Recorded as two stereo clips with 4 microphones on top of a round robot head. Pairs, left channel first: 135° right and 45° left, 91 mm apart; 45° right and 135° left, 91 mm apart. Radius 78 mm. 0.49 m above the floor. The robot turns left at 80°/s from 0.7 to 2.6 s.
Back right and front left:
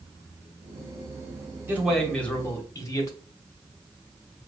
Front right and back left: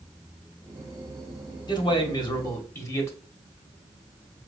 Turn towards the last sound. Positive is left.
turn(degrees=-95)